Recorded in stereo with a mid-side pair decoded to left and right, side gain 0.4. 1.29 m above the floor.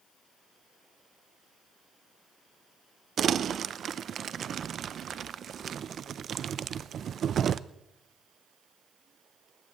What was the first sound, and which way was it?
Crumpling, 60° right.